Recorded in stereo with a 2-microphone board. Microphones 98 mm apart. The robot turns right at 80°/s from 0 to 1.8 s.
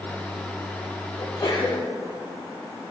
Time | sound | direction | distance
1.2 | a sneeze | 110° left | 2.5 m